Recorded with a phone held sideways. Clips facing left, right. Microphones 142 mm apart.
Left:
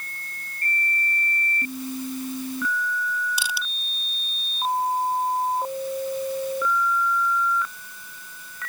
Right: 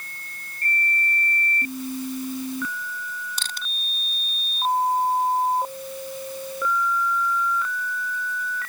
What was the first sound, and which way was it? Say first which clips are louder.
Crushing: left 5 dB; 10° left (ahead or behind).